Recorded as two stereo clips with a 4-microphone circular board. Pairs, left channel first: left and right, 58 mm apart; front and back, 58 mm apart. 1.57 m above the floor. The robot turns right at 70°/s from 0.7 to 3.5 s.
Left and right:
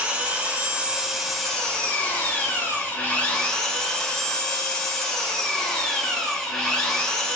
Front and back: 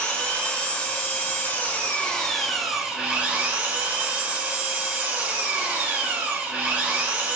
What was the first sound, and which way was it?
An engine running, 40° right.